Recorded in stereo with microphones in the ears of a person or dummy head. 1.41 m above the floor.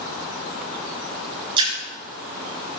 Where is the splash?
25° right (ahead or behind), 4.5 m.